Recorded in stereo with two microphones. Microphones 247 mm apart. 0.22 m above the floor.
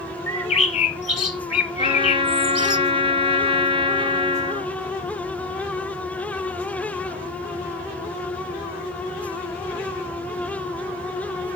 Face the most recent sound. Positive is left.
turn(degrees=-25)  # may be behind; listen again after turning